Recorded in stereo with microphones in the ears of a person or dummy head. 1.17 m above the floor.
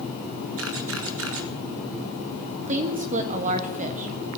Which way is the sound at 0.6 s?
65° right (ahead or behind).